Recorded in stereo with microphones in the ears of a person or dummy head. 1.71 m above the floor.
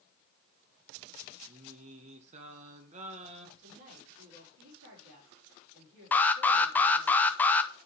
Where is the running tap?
No running tap in this recording.